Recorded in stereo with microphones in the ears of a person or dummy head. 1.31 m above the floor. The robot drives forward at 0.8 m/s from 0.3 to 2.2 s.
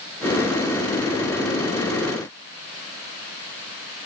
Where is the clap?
I don't hear a clap.